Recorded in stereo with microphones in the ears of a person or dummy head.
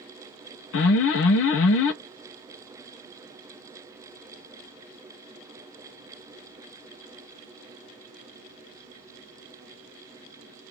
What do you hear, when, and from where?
0.7 s an alarm: 70° left (ahead or behind), 0.9 m